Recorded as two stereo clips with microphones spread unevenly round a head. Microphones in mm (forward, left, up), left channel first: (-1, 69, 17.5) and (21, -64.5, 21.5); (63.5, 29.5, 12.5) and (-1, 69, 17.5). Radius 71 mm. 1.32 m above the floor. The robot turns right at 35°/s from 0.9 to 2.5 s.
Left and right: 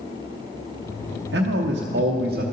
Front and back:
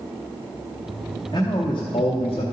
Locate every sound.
1.3 s a man speaking: 95° right, 0.7 m; by 2.4 s 55° right, 0.7 m